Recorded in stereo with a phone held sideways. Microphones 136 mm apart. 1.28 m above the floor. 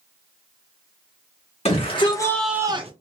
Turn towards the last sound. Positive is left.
turn(degrees=-45)  # may be behind; listen again after turning